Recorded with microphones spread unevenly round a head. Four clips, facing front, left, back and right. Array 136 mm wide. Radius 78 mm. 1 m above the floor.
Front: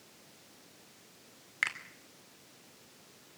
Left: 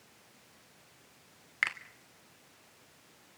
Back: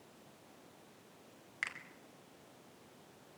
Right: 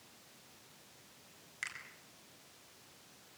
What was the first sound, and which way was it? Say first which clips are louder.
A finger snap: left 12 dB, front 8 dB; 45° left.